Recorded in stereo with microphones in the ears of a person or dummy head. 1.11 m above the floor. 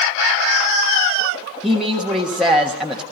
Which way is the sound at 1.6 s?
Centre (ahead or behind).